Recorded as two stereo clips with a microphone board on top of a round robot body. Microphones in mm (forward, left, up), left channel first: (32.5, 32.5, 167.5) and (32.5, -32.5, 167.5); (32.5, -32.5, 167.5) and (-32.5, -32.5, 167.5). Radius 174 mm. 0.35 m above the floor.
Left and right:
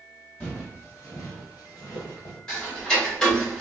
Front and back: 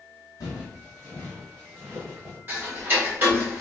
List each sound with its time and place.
0.4 s footsteps: 15° left, 0.7 m; by 2.4 s 130° left, 0.8 m
2.5 s ticking: 165° left, 1.7 m